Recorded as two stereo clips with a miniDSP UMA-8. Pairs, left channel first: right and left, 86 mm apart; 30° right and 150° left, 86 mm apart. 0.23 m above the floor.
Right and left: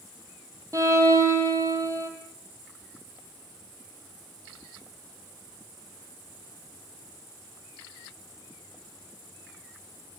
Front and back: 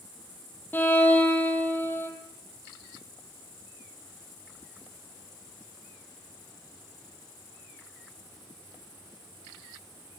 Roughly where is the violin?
Ahead left.